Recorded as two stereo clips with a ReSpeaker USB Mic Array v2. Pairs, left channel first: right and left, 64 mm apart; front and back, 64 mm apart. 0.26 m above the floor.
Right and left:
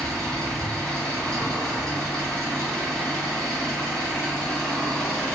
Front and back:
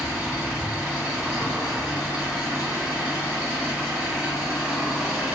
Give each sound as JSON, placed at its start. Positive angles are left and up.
{"t": 0.0, "sound": "an engine running", "azimuth_deg": -150, "distance_m": 1.4}